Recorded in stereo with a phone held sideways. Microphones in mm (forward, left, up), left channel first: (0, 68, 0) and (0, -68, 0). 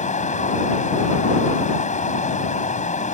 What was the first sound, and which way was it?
Running water, 65° left (ahead or behind).